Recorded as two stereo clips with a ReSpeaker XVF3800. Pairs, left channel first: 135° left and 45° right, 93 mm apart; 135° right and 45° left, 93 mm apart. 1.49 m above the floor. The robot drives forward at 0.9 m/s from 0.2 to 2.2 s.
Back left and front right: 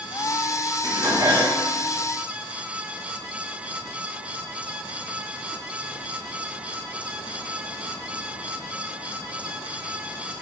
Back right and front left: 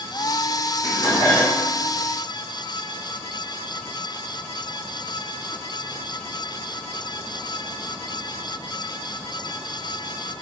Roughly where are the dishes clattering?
Right.